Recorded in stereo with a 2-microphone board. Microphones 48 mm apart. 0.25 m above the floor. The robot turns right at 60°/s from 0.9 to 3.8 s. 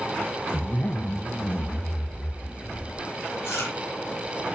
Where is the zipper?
40° left, 1.0 m; by 3.0 s 170° left, 1.0 m.